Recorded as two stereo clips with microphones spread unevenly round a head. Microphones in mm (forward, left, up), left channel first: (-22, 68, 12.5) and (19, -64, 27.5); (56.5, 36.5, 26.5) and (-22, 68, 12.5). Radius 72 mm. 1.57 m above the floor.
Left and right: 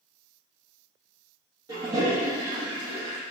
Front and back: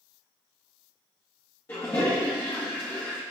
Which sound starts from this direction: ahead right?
A toilet flushing, at 1.7 s.